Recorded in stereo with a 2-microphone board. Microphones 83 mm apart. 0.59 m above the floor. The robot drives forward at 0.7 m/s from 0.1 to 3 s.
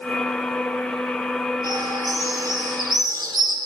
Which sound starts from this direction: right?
A bird, at 1.6 s.